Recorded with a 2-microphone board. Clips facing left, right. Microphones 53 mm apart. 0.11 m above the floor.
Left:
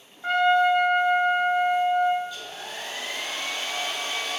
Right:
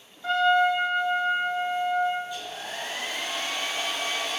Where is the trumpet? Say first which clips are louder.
Left 1 dB; 35° left (ahead or behind), 0.6 m.